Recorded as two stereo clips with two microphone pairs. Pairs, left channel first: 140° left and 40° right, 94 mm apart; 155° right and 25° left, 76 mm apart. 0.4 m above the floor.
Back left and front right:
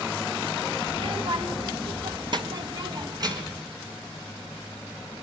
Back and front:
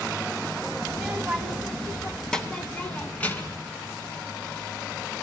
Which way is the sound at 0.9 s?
50° right.